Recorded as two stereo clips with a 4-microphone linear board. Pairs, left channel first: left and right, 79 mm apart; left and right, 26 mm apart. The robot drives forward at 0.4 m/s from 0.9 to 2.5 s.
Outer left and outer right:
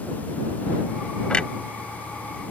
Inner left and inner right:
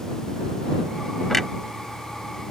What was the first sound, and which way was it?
A clunk, 10° left (ahead or behind).